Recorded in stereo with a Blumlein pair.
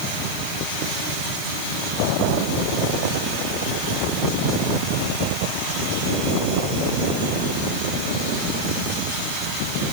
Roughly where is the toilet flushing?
I don't hear a toilet flushing.